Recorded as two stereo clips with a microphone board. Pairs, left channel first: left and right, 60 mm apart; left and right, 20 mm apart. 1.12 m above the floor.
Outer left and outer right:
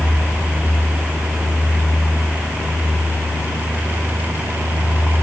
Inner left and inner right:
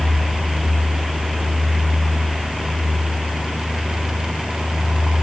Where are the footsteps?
I don't hear footsteps.